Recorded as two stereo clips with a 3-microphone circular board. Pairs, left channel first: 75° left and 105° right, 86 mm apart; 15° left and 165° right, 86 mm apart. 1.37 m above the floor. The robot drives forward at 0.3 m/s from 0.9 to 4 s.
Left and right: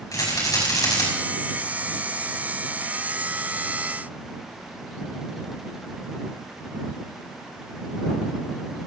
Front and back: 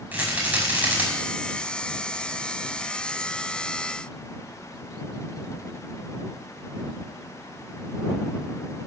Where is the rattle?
125° left, 5.5 m.